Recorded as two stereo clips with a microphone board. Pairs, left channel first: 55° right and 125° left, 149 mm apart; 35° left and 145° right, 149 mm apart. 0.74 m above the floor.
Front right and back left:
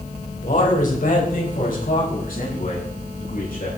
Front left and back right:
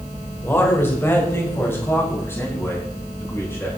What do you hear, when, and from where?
0.4 s a man speaking: 40° right, 3.5 m